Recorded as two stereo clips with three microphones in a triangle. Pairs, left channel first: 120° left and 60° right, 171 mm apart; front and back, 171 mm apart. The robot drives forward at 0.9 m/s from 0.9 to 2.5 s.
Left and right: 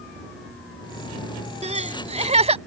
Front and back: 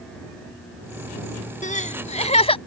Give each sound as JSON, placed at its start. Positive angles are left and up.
{"t": 1.6, "sound": "crying", "azimuth_deg": -25}